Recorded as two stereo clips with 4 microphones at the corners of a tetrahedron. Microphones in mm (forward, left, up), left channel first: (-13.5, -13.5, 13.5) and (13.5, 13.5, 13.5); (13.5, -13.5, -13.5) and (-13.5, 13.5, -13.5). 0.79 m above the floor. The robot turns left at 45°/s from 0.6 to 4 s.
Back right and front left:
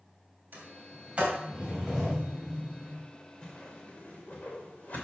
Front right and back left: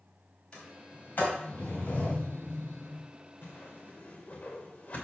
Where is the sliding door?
15° left, 3.5 m; by 3.0 s 95° right, 3.5 m.